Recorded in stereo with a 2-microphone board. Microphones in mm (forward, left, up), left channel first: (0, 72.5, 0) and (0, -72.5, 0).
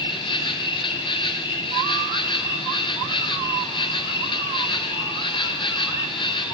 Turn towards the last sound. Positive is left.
turn(degrees=35)  # may be behind; listen again after turning